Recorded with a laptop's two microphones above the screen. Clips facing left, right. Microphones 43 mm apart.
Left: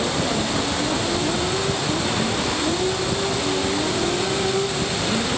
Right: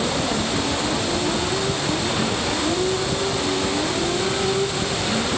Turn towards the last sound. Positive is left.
No sound to turn to.